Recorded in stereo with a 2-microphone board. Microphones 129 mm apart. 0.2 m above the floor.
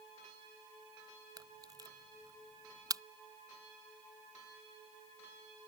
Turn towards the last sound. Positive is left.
turn(degrees=-30)  # may be behind; listen again after turning